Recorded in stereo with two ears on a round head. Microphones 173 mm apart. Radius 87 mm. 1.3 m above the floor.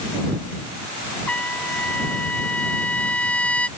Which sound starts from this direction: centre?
A trumpet, at 1.3 s.